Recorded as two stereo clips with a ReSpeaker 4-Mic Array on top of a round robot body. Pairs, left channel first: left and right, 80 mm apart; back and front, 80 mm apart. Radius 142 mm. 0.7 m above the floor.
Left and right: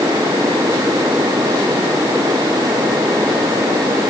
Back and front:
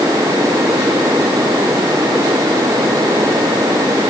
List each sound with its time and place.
Only background noise.